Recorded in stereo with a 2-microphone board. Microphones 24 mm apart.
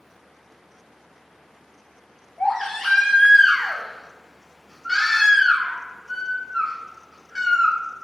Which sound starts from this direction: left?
A baby crying, at 2.4 s.